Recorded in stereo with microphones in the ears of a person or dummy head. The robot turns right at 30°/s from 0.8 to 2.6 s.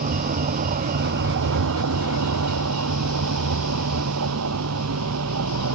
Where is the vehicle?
140° right; by 5.8 s 85° right.